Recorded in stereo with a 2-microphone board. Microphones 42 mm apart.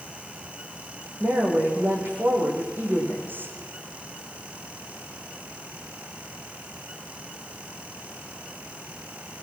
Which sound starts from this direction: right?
A woman speaking, at 1.2 s.